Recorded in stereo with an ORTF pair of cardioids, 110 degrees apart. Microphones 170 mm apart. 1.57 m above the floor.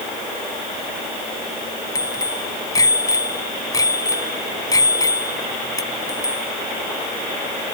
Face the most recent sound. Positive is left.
turn(degrees=20)